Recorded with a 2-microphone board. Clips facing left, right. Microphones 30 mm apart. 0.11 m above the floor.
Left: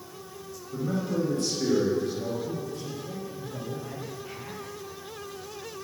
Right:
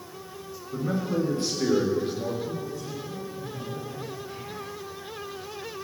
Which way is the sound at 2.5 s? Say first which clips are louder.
Right 1 dB; 80° left.